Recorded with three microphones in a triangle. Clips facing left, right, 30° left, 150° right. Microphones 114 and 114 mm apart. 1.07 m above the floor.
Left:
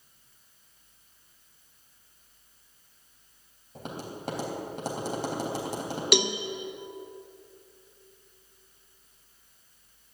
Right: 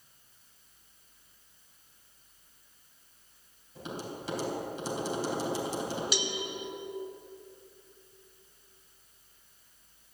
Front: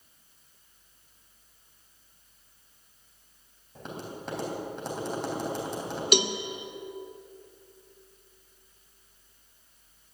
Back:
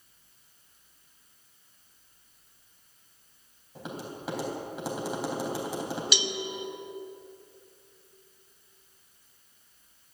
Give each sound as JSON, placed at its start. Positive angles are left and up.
{"t": 3.8, "sound": "tapping", "azimuth_deg": 130, "distance_m": 3.5}
{"t": 6.1, "sound": "a cowbell", "azimuth_deg": 70, "distance_m": 0.7}